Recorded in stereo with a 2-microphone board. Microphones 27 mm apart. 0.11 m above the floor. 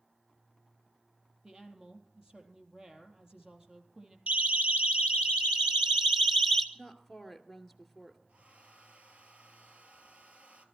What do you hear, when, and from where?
1.4 s a woman speaking: 30° right (ahead or behind), 3.5 m
4.3 s a siren: 60° right (ahead or behind), 3 m; by 6.7 s 5° left (ahead or behind), 1.7 m
6.8 s a woman speaking: 5° right (ahead or behind), 2 m
8.3 s a hair dryer: 55° right (ahead or behind), 1.8 m